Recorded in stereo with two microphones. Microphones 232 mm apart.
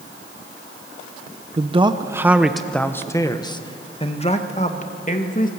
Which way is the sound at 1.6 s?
30° right (ahead or behind).